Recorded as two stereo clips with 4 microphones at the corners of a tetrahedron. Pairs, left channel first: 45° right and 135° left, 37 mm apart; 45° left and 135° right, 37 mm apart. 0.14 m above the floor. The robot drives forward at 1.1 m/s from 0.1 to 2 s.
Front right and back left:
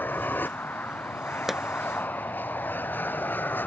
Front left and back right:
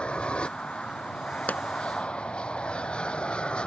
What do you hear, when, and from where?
0.0 s an aircraft: 15° right
1.5 s a pop: 55° left; by 1.6 s 65° left